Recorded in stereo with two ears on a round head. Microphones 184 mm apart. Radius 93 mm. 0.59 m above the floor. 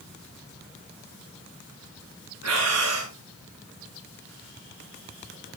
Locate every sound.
2.4 s breathing: 80° right, 8 m